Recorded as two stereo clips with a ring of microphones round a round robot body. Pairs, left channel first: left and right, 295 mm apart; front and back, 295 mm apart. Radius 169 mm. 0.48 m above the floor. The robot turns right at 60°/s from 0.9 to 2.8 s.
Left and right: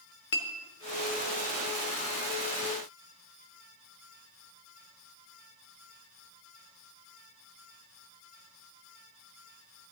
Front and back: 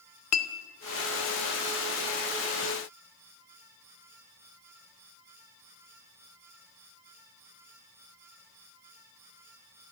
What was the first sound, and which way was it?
A clink, 35° left.